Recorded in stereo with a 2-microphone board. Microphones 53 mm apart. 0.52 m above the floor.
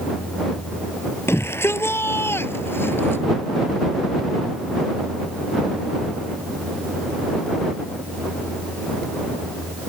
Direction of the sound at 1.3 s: 55° left (ahead or behind).